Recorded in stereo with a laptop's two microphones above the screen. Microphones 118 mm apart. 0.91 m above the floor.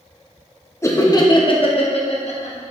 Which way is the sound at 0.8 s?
20° left (ahead or behind).